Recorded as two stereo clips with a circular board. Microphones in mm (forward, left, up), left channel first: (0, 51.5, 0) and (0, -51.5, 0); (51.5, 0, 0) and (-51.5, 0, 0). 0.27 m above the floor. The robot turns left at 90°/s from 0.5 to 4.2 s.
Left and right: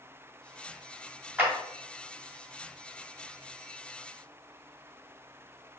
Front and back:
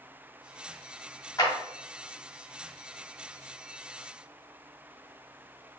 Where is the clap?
25° right, 1.6 m; by 1.5 s 35° right, 1.6 m.